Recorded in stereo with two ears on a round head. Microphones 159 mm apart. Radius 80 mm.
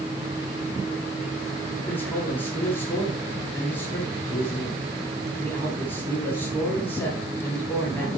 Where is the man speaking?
10° left (ahead or behind), 10 m.